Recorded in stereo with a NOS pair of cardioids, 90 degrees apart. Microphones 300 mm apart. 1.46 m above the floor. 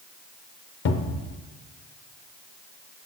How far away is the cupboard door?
About 0.6 m.